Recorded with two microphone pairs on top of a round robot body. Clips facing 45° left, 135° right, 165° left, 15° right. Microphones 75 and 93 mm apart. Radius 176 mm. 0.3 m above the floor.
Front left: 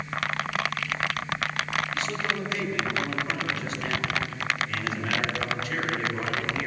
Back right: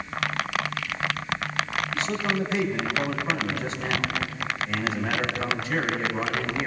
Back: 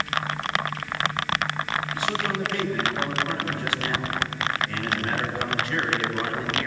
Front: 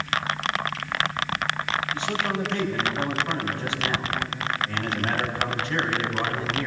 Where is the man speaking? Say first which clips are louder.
Back right 3 dB, even; 75° right, 4.5 m.